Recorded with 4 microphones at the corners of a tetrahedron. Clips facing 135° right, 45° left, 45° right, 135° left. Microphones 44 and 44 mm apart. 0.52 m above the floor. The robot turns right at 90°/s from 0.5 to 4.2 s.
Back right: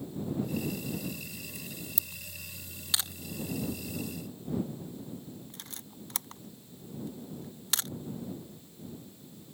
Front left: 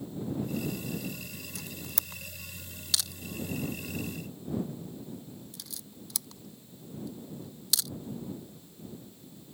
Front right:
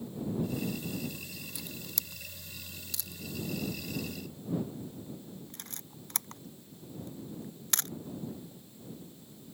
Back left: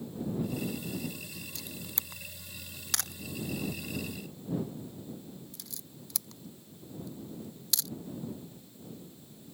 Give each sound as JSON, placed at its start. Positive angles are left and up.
{"t": 1.6, "sound": "a camera shutter", "azimuth_deg": 35}